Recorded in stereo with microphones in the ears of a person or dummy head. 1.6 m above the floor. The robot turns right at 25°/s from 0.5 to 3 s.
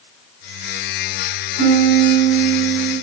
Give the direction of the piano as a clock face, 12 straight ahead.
3 o'clock.